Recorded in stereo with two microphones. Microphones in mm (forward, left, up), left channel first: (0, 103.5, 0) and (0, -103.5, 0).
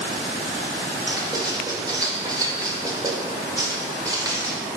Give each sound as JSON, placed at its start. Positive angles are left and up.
{"t": 1.1, "sound": "writing", "side_deg": -20, "distance_m": 0.6}